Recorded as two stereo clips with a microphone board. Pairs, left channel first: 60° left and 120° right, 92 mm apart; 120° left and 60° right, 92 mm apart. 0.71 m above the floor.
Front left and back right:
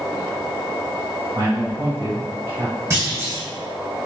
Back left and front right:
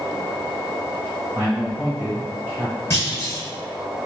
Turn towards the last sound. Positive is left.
turn(degrees=180)